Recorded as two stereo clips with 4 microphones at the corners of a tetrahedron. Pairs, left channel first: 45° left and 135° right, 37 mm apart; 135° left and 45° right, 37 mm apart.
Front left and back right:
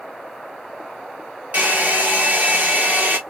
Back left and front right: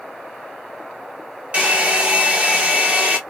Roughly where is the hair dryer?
Right.